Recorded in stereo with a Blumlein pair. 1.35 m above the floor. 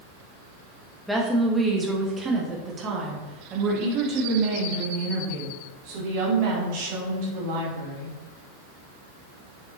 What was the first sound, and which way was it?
A woman speaking, straight ahead.